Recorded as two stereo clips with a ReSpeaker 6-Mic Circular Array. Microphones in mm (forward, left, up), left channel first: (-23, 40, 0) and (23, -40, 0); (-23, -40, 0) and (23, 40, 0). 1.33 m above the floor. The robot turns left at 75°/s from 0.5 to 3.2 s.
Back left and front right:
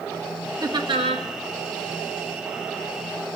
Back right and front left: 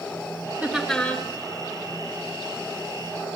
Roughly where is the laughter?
Ahead.